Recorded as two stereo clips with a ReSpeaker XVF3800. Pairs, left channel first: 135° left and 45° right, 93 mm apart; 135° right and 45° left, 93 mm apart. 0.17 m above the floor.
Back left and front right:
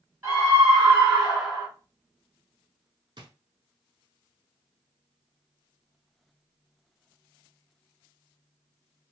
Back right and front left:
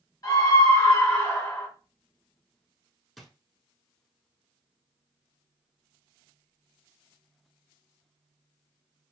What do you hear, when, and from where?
0.2 s a scream: 105° right, 2.5 m; by 1.7 s 120° right, 1.8 m
3.2 s a drawer: 45° right, 0.8 m